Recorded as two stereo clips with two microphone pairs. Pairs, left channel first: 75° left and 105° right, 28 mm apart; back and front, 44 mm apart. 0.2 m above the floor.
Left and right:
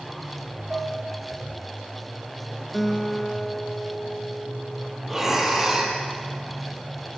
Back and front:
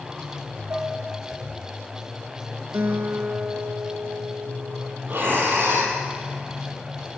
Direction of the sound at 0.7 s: 45° right.